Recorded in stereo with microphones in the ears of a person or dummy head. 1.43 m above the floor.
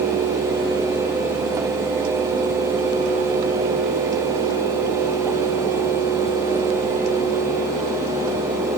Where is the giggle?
No giggle in this recording.